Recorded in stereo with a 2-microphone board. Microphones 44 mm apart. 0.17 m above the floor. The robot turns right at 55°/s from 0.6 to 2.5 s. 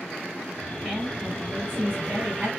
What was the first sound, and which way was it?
A woman speaking, 170° right.